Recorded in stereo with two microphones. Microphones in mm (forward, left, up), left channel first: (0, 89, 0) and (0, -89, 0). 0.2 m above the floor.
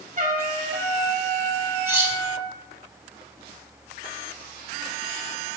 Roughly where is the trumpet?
Right.